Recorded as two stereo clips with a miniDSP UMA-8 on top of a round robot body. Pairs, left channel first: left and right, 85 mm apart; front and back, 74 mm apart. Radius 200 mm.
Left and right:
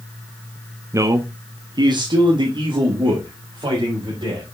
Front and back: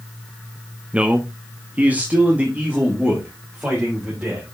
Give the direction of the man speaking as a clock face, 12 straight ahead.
4 o'clock.